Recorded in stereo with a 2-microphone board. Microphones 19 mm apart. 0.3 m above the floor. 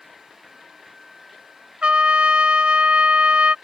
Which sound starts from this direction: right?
A trumpet, at 1.8 s.